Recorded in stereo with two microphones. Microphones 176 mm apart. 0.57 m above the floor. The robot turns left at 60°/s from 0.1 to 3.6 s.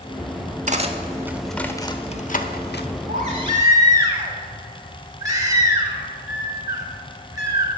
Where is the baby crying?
130° right, 2.5 m; by 7.7 s 160° right, 2.5 m.